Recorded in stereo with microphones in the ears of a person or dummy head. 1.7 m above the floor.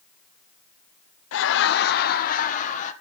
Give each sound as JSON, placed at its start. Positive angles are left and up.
{"t": 1.3, "sound": "laughter", "side_deg": 80, "distance_m": 0.8}